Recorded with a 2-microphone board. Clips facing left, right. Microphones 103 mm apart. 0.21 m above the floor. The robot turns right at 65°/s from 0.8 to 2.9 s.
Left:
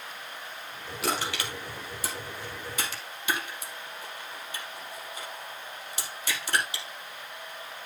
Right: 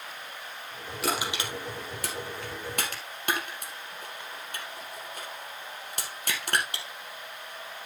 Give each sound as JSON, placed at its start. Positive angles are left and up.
{"t": 1.0, "sound": "crushing", "side_deg": 0, "distance_m": 3.5}